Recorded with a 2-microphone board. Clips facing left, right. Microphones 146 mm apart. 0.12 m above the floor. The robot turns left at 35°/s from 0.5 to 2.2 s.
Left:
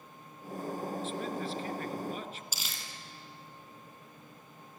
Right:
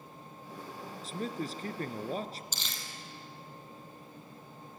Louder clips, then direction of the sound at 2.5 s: Right 1 dB; 5° left (ahead or behind).